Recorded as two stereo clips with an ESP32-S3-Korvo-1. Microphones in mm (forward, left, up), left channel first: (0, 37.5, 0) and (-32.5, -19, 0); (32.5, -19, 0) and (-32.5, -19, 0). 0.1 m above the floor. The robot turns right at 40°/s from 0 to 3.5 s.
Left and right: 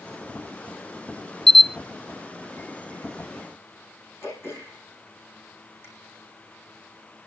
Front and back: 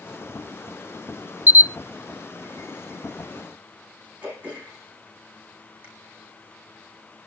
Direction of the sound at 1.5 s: 135° left.